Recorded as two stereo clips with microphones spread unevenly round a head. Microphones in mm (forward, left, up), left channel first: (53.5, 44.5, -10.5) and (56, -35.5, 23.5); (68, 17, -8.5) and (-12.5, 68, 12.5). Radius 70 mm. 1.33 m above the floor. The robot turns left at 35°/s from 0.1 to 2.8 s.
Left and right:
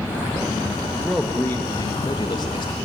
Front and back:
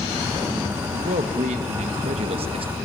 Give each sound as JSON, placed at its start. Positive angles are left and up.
{"t": 0.9, "sound": "a man speaking", "azimuth_deg": -175, "distance_m": 1.9}